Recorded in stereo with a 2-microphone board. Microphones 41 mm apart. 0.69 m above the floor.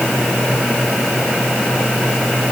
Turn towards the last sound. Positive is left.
No sound to turn to.